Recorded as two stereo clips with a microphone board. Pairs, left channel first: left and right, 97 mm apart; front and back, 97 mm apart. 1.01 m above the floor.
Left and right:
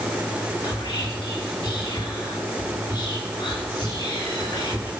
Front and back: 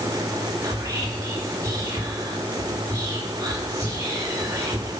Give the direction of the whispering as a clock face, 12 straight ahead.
8 o'clock.